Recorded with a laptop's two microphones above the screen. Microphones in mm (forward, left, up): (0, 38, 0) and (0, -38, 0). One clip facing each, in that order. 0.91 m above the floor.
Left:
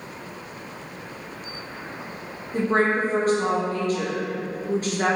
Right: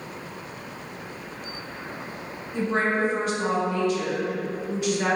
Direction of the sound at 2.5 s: 40° left (ahead or behind).